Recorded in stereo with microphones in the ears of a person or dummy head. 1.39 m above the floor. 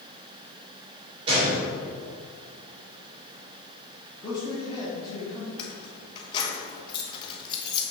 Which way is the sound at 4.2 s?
25° left (ahead or behind).